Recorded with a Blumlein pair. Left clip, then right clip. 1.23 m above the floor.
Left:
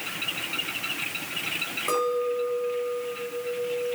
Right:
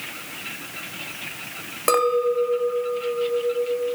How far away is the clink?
About 0.8 m.